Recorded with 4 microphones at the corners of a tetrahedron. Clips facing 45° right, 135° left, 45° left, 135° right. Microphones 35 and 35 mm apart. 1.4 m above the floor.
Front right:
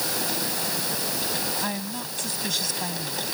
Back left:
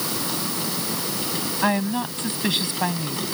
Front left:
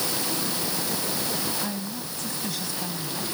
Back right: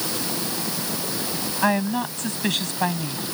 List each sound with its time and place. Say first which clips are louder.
1.6 s a woman speaking: back left 9 dB, back right 11 dB; 165° right